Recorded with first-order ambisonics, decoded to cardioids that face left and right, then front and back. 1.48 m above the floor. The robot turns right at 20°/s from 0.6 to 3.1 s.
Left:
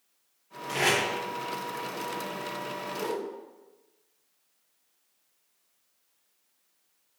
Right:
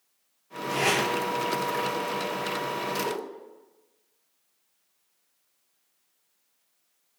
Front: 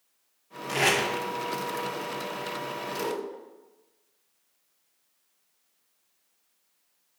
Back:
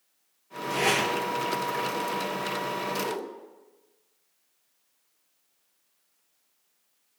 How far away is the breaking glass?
No breaking glass in this recording.